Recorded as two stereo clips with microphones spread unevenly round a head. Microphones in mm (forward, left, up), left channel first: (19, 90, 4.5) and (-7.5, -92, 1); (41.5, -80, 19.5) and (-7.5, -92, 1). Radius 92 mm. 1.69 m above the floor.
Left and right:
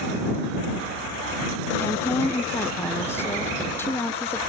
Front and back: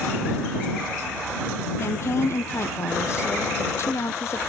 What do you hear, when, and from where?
1.8 s a woman speaking: 5° left